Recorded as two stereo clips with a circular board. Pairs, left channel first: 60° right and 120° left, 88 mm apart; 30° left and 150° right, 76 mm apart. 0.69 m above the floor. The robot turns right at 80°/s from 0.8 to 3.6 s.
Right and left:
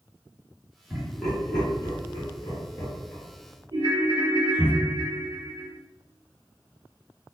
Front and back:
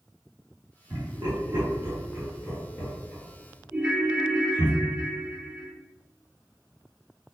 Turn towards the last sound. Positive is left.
turn(degrees=140)